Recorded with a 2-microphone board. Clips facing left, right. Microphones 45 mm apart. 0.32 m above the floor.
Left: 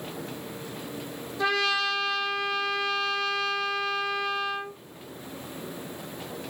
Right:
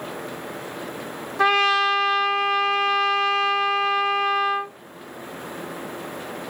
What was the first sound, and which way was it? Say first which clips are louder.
A trumpet: right 7 dB; 60° right (ahead or behind).